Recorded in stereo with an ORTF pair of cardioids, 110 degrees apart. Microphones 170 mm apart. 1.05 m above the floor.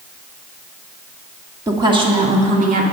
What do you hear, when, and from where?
1.7 s a woman speaking: 20° right, 1.8 m; by 2.8 s 55° right, 2 m